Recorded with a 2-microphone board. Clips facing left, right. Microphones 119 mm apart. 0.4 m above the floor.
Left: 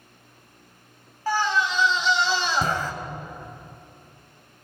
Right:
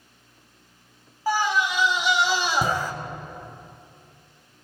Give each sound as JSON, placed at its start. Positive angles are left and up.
{"t": 1.3, "sound": "a scream", "side_deg": -10, "distance_m": 2.5}